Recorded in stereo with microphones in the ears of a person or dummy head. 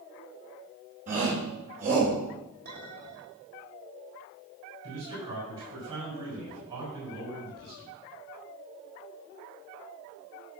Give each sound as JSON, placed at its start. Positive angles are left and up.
{"t": 1.1, "sound": "a shout", "side_deg": -35, "distance_m": 4.0}
{"t": 2.6, "sound": "a clink", "side_deg": -50, "distance_m": 3.0}
{"t": 4.8, "sound": "a man speaking", "side_deg": -20, "distance_m": 4.0}